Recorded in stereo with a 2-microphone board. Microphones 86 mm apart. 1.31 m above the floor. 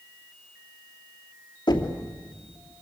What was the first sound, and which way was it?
Knocking, 60° left (ahead or behind).